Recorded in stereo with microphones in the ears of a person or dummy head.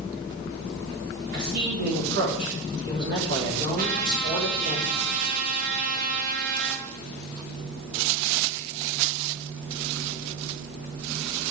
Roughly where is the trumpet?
Right.